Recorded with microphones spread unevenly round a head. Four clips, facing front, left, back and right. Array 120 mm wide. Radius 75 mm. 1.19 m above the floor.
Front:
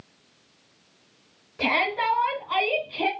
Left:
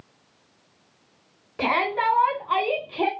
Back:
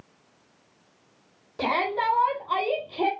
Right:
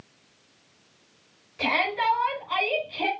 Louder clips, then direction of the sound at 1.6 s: Left 3 dB, even; 125° left.